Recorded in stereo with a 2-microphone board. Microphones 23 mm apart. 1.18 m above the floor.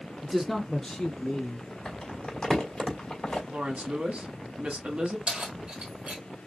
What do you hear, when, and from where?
0.2 s a man speaking: 25° right (ahead or behind), 0.8 m; by 1.8 s 55° left (ahead or behind), 1.9 m
1.9 s crumpling: 30° left (ahead or behind), 2.5 m
3.5 s a woman speaking: 65° right (ahead or behind), 1.8 m
5.3 s keys jangling: 50° right (ahead or behind), 1.9 m